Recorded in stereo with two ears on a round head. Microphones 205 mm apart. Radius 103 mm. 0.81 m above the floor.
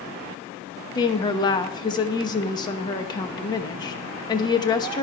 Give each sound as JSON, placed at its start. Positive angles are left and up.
{"t": 0.9, "sound": "a woman speaking", "side_deg": 20, "distance_m": 0.9}